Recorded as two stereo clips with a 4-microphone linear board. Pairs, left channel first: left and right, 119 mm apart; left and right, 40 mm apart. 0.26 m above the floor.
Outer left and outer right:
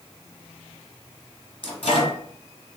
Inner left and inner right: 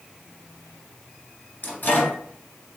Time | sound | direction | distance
1.6 | a microwave | 50° left (ahead or behind) | 2.5 m